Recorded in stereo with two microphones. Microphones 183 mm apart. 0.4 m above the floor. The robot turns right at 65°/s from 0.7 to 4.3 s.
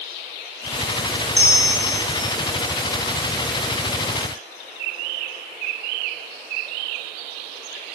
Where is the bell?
30° left, 1.1 m; by 2.4 s 95° left, 1.1 m.